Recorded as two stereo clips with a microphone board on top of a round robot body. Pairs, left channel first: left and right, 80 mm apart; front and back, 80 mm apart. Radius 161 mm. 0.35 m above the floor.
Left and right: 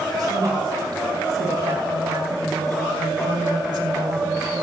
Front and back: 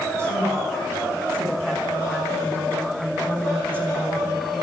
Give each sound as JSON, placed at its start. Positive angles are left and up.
{"t": 0.2, "sound": "a woman speaking", "azimuth_deg": -130, "distance_m": 6.0}